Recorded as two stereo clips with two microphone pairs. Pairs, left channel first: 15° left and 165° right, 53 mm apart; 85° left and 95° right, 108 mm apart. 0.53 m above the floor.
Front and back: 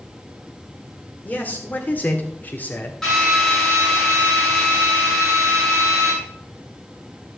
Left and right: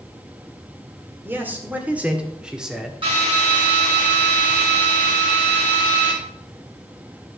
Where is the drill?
60° right, 7 m.